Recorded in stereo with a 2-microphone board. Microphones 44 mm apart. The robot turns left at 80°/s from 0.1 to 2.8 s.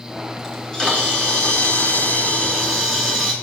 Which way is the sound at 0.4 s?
175° right.